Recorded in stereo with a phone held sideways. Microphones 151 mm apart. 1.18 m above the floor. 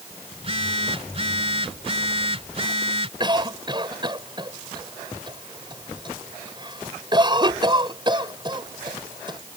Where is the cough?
30° right (ahead or behind).